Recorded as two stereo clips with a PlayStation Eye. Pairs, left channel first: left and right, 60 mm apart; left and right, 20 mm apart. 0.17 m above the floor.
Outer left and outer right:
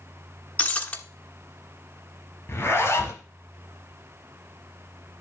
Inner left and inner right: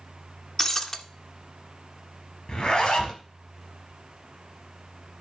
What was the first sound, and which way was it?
Breaking glass, 20° left (ahead or behind).